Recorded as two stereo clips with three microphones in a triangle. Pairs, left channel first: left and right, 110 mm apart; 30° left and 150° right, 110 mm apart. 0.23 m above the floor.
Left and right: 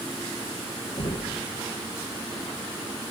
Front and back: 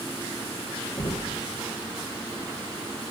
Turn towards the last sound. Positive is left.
turn(degrees=60)